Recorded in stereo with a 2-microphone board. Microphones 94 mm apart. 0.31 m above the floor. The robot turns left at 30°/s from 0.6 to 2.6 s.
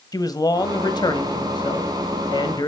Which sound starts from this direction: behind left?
A man speaking, at 0.1 s.